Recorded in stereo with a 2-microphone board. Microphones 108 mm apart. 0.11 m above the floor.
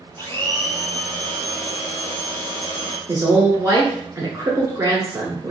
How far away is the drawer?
No drawer in this recording.